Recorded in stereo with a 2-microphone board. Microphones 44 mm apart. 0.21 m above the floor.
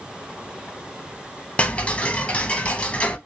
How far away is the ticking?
About 0.6 m.